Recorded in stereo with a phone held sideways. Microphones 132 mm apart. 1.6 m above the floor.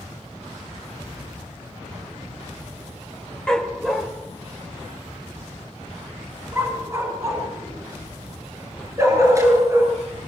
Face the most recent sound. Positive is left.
turn(degrees=-25)  # may be behind; listen again after turning